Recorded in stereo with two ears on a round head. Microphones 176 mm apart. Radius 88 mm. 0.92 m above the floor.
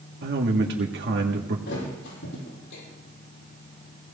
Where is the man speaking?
55° right (ahead or behind), 1.7 m.